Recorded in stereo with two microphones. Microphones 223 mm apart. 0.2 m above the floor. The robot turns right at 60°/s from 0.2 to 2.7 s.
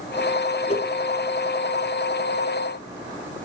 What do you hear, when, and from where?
0.7 s a whoosh: 30° left (ahead or behind), 3.5 m; by 0.9 s 15° left (ahead or behind), 3.5 m